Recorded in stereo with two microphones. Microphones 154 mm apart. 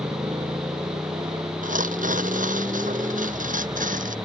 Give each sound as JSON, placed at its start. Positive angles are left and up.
{"t": 0.0, "sound": "a motorcycle", "side_deg": -25}
{"t": 1.6, "sound": "tearing paper", "side_deg": -60}